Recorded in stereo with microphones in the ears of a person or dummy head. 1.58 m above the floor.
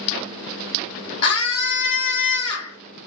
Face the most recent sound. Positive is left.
turn(degrees=30)  # may be behind; listen again after turning